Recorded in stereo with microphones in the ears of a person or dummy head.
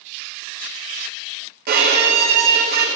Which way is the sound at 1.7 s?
50° right (ahead or behind).